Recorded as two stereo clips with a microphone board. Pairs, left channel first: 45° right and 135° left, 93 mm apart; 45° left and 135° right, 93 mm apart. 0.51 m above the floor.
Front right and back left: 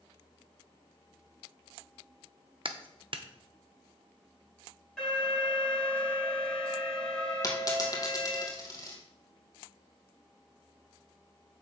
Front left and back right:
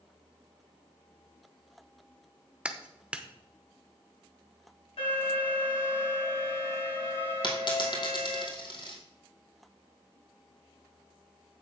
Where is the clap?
150° left, 0.8 m.